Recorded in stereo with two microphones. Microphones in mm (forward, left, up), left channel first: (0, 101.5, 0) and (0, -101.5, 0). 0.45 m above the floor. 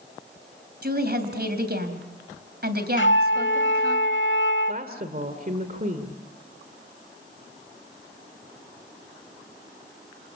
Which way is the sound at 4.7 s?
45° right (ahead or behind).